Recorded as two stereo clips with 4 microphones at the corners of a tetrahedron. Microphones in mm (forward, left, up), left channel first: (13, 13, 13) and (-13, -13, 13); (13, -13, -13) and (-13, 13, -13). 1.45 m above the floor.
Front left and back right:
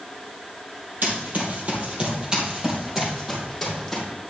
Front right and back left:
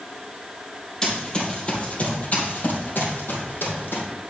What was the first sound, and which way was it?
Running footsteps, 115° right.